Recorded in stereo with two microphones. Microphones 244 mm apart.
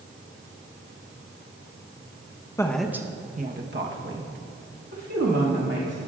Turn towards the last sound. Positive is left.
turn(degrees=-80)